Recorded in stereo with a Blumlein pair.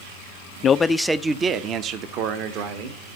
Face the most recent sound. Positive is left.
turn(degrees=-45)